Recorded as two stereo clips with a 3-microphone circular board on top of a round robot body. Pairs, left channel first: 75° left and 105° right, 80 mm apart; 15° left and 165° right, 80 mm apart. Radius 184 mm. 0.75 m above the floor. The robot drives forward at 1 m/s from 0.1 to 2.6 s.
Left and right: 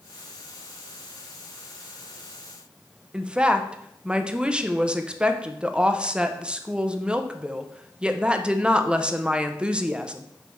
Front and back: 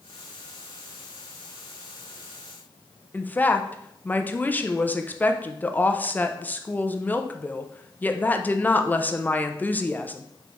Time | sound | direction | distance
3.1 | a woman speaking | 35° right | 0.8 m